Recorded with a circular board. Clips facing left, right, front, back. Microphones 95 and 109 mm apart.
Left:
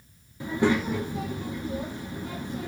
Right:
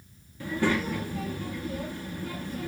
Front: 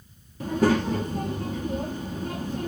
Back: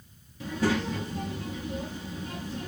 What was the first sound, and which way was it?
A child speaking, 25° left.